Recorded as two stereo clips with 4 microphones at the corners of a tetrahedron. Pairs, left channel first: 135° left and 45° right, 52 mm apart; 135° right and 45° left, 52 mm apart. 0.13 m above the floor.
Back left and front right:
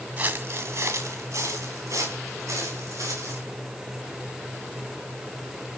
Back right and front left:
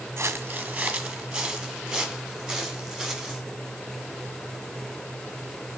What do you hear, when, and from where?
0.2 s footsteps: 10° left, 0.7 m; by 3.4 s 40° right, 5.5 m